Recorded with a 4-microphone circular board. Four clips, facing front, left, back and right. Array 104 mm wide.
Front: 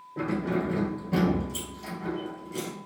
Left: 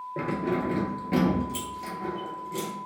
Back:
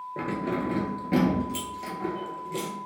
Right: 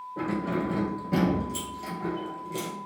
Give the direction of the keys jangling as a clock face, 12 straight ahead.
8 o'clock.